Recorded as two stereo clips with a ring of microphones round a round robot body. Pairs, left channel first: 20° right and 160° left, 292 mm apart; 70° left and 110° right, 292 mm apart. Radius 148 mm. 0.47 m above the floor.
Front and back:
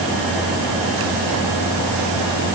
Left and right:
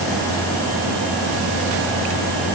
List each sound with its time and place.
Only background noise.